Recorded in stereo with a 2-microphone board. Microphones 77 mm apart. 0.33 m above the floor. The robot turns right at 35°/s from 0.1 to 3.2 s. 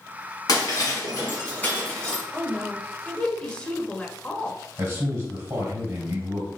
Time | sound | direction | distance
0.5 | breaking glass | 60° left (ahead or behind) | 2 m
2.3 | a woman speaking | 20° left (ahead or behind) | 0.9 m
4.8 | a man speaking | 45° right (ahead or behind) | 2 m